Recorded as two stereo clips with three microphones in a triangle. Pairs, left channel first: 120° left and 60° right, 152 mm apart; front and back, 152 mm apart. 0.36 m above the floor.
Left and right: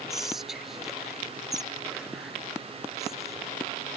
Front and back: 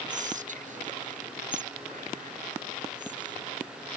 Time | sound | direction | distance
0.1 | whispering | 150° right | ?